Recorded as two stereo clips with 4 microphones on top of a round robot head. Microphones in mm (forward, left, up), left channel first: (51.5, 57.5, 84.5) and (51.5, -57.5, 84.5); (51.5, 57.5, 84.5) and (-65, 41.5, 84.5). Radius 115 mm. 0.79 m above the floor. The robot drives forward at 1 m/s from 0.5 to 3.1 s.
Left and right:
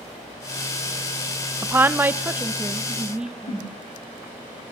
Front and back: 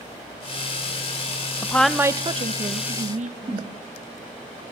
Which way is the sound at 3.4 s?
140° left.